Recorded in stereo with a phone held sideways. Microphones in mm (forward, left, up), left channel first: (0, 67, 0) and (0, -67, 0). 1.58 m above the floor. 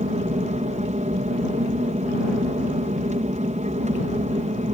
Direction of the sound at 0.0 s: 60° right (ahead or behind).